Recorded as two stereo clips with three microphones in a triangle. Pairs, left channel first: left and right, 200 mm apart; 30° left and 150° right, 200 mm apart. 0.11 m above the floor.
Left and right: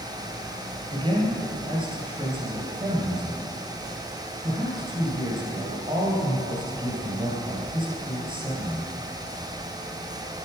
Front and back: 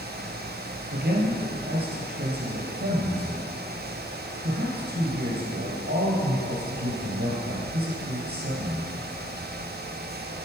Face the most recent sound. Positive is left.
turn(degrees=-150)